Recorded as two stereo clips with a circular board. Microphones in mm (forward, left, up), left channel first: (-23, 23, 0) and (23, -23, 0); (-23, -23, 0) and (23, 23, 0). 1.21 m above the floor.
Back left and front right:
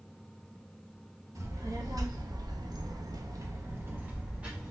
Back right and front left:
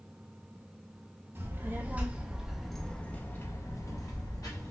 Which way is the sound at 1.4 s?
10° right.